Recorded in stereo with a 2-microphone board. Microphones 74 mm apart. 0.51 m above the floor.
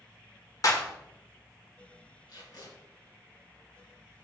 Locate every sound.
0.6 s a clap: 50° left (ahead or behind), 1.6 m
2.3 s tape being pulled: 60° left (ahead or behind), 4.5 m